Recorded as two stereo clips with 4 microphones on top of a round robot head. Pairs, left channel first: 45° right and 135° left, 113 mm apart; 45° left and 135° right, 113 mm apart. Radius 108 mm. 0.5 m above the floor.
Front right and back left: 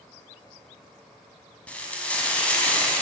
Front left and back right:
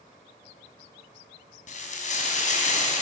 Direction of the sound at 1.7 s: 35° left.